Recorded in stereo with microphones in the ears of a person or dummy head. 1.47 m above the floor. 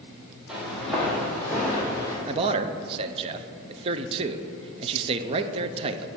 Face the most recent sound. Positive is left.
turn(degrees=-30)  # may be behind; listen again after turning